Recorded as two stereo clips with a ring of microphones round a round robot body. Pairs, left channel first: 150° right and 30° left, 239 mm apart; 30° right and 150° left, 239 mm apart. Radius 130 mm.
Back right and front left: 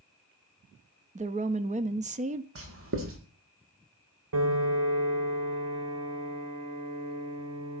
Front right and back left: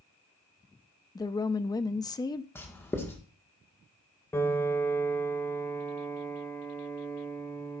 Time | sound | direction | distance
1.1 | a woman speaking | 30° left | 0.5 m
2.5 | writing | 50° left | 1.5 m
4.3 | a piano | 50° left | 1.2 m